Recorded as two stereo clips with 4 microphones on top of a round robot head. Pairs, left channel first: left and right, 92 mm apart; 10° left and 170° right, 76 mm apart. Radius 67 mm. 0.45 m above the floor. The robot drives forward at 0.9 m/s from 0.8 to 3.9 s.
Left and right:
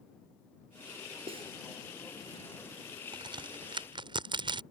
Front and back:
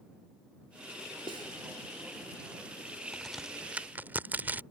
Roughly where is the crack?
Right.